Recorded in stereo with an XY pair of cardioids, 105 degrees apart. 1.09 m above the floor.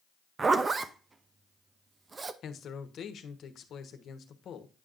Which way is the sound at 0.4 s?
35° right.